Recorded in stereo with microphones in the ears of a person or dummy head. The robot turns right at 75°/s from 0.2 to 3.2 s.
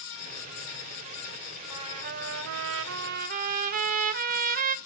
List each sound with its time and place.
1.7 s a trumpet: 155° right, 0.7 m; by 4.8 s 45° right, 0.7 m